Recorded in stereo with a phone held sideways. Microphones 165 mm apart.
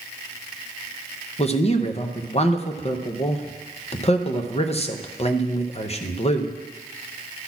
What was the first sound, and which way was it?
A man speaking, 40° left (ahead or behind).